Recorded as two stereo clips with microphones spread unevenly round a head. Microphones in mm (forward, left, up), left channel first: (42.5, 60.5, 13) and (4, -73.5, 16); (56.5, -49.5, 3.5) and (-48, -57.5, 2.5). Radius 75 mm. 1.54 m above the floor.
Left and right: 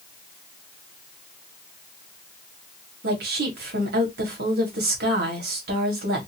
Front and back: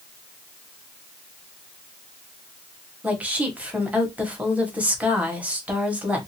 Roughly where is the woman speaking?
Right.